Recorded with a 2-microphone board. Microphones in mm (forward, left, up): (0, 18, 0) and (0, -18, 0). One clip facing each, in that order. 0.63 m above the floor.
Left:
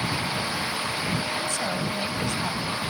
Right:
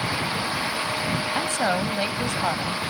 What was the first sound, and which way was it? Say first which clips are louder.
A woman speaking: right 4 dB; 50° right (ahead or behind).